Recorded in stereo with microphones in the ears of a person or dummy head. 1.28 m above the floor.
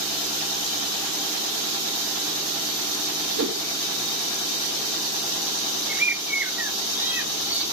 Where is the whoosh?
60° right (ahead or behind), 1.5 m.